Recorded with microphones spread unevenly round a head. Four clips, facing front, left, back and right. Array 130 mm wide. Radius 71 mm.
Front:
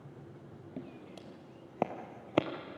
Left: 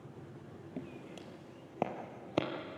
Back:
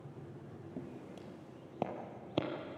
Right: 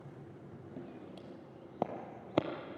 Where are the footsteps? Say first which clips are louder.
Left 3 dB, front 1 dB; 65° left, 2.0 m; by 2.5 s 10° left, 1.9 m.